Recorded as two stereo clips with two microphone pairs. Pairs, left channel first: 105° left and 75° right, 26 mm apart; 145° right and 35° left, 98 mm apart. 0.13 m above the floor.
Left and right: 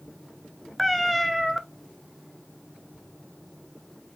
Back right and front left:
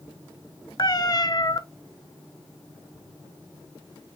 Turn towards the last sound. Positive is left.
turn(degrees=-165)